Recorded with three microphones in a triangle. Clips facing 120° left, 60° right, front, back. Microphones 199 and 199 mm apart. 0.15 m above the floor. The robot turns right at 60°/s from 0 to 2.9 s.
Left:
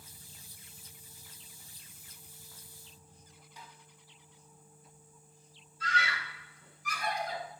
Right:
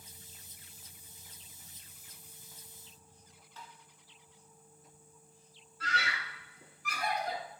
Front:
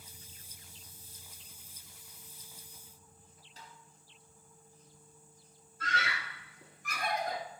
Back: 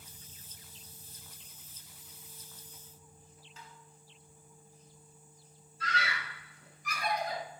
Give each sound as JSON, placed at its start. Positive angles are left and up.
{"t": 3.6, "sound": "tapping", "azimuth_deg": 45, "distance_m": 2.0}
{"t": 5.8, "sound": "a scream", "azimuth_deg": -35, "distance_m": 3.0}